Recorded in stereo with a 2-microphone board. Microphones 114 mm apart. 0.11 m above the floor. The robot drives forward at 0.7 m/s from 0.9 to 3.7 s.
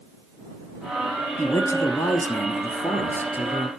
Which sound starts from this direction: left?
A man speaking, at 1.4 s.